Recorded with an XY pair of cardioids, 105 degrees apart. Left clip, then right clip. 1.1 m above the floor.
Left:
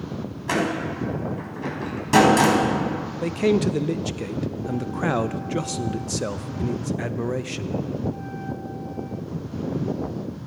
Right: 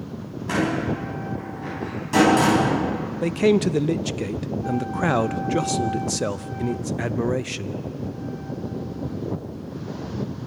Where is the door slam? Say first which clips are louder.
Even; 45° left, 6 m.